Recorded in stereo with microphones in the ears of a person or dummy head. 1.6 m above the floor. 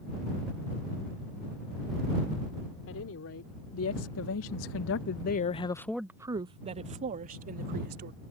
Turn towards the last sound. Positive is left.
turn(degrees=-45)  # may be behind; listen again after turning